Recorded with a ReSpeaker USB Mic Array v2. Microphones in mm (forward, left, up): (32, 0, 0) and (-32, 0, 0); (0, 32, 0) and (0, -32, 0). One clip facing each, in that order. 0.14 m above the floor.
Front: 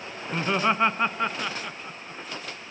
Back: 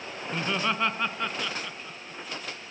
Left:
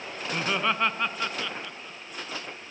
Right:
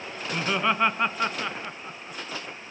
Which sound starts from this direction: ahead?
Laughter, at 0.3 s.